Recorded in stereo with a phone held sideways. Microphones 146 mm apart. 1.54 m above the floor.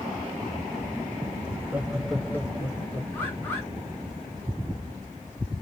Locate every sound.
1.5 s laughter: 20° right (ahead or behind), 1.3 m; by 3.0 s 25° left (ahead or behind), 1.7 m
3.1 s a bird: 15° left (ahead or behind), 2 m